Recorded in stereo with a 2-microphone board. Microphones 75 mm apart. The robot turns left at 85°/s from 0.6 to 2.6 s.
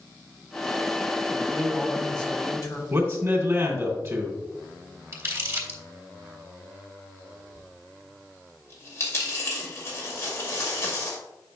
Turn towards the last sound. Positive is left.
turn(degrees=35)  # may be behind; listen again after turning